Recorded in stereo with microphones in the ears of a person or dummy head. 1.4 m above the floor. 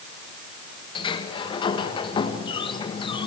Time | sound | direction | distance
0.9 | a sliding door | 30° left (ahead or behind) | 1.5 m